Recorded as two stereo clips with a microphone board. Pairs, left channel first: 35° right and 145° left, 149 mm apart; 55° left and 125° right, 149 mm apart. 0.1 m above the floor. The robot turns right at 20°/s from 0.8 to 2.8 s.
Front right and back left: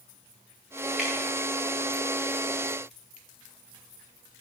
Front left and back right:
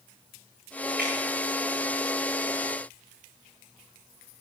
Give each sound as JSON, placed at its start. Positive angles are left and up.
{"t": 1.0, "sound": "dripping", "azimuth_deg": -130, "distance_m": 6.5}